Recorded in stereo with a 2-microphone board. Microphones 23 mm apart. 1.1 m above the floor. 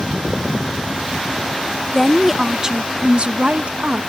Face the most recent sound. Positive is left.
turn(degrees=-65)  # may be behind; listen again after turning